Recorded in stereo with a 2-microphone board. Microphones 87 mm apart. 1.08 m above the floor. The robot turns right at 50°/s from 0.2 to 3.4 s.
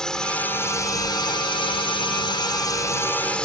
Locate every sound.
0.0 s a drone: 10° left; by 3.5 s 170° left